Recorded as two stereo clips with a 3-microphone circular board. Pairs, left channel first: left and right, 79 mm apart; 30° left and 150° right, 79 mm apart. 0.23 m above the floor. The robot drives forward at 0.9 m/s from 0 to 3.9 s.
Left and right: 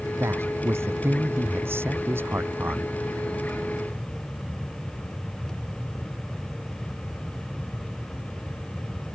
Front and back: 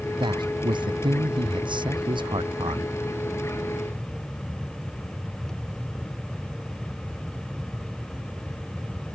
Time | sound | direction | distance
0.2 | a man speaking | 145° right | ?